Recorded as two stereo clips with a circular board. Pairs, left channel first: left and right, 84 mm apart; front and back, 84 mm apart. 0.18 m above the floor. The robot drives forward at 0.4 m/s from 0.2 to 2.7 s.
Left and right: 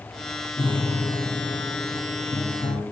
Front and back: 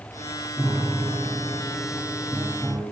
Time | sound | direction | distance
0.6 | a piano | 80° left | 1.7 m